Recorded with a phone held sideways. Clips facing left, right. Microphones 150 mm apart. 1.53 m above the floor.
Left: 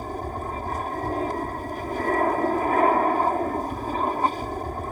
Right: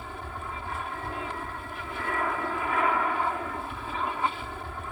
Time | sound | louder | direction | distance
0.0 | an aircraft | left 8 dB | 40° left (ahead or behind) | ?